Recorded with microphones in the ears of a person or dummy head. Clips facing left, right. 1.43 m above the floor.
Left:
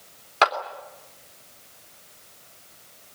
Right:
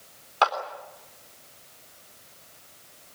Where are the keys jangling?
I don't hear keys jangling.